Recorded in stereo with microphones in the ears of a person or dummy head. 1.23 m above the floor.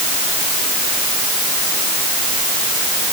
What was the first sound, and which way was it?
Only background noise.